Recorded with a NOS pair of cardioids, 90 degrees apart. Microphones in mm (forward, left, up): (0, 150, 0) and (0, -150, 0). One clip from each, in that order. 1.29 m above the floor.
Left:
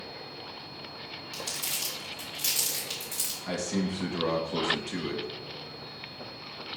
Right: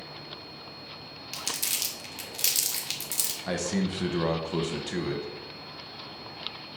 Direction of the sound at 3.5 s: 25° right.